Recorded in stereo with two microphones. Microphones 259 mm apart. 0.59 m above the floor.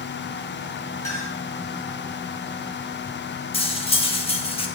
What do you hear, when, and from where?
1.0 s a clink: 10° left (ahead or behind), 5 m
3.5 s cutlery clinking: 20° left (ahead or behind), 0.8 m